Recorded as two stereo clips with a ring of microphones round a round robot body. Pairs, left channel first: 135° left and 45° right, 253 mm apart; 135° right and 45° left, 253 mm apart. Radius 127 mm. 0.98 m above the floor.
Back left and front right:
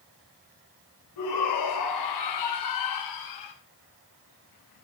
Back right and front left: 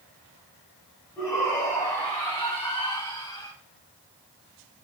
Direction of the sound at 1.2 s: 145° left.